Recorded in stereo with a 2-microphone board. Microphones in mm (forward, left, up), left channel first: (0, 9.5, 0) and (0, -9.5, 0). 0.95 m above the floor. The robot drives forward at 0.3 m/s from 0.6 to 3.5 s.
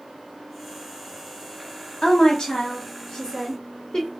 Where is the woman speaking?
45° left (ahead or behind), 1.4 m; by 4.1 s 35° left (ahead or behind), 1.7 m.